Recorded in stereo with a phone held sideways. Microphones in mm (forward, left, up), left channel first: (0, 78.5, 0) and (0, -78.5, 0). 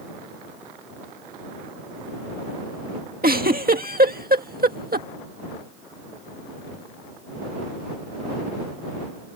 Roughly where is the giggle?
Right.